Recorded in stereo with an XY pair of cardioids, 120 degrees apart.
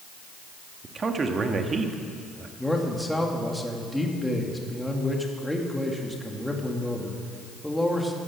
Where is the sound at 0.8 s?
30° right, 1.8 m.